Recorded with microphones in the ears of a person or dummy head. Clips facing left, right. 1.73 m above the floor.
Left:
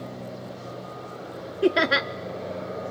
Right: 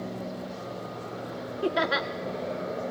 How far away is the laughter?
About 0.6 m.